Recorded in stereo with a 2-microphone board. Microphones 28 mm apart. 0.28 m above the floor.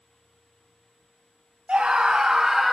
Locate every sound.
1.7 s a scream: 35° right (ahead or behind), 2.5 m; by 2.8 s centre (ahead or behind), 1.9 m